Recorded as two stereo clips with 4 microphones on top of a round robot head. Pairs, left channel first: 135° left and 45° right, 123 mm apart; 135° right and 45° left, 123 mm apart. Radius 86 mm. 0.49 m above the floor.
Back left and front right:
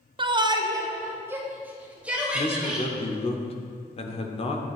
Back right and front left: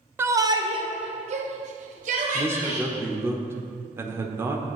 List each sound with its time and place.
0.2 s a shout: 20° right, 1.0 m; by 2.9 s 40° left, 3 m
2.3 s a man speaking: 115° left, 1.2 m